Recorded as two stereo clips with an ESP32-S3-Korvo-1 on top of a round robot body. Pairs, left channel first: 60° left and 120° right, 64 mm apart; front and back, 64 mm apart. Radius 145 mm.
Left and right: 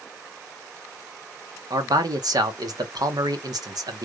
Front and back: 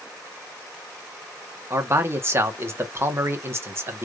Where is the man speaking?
130° right, 1.6 m.